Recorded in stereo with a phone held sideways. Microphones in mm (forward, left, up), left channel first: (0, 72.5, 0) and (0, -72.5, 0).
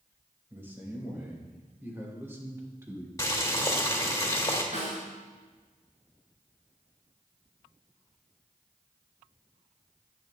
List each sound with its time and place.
0.5 s a man speaking: 15° right (ahead or behind), 4 m; by 3.1 s 20° right (ahead or behind), 2 m
3.2 s boiling: 20° left (ahead or behind), 1.9 m
4.7 s a snare drum: 55° right (ahead or behind), 4 m